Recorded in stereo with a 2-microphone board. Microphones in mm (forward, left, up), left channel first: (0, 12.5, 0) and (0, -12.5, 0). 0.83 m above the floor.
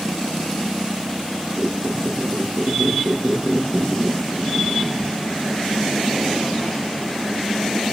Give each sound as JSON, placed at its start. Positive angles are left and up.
{"t": 1.6, "sound": "a squeak", "side_deg": -45, "distance_m": 4.5}